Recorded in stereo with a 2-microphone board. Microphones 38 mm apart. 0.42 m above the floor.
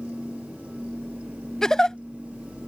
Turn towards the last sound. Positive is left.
turn(degrees=15)  # may be behind; listen again after turning